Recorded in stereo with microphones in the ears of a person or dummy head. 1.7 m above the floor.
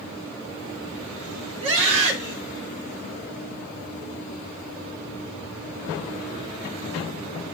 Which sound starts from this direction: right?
A scream, at 1.6 s.